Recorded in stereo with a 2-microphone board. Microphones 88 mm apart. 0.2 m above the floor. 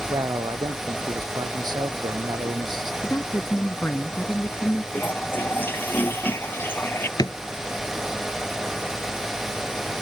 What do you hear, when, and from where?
0.1 s a man speaking: 50° right (ahead or behind)
3.0 s a woman speaking: 25° left (ahead or behind)
4.9 s a toilet flushing: 25° left (ahead or behind)
7.2 s a drawer: 50° left (ahead or behind)